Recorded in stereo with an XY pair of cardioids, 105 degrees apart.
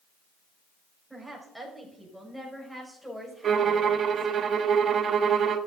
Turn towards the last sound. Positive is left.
turn(degrees=-50)